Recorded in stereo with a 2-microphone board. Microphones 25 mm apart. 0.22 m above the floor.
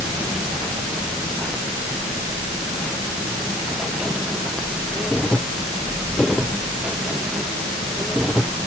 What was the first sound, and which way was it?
Only background noise.